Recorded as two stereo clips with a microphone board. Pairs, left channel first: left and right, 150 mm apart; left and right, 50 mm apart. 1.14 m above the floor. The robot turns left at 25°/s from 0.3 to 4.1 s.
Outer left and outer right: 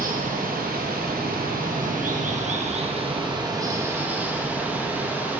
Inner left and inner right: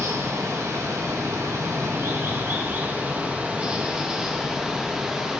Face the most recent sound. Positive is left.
turn(degrees=-170)